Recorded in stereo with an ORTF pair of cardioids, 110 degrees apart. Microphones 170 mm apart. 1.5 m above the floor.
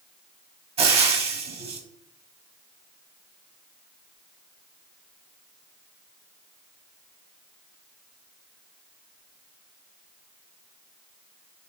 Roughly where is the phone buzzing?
No phone buzzing in this recording.